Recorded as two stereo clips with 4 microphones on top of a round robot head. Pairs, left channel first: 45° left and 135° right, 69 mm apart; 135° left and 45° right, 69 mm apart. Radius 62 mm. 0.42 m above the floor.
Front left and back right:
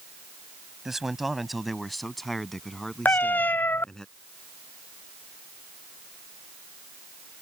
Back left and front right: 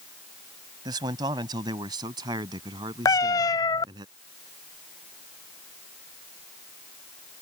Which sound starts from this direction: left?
A cat meowing, at 3.0 s.